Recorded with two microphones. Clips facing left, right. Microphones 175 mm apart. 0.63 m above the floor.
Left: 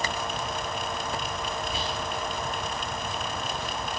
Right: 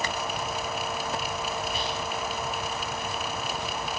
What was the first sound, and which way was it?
Whispering, 25° left (ahead or behind).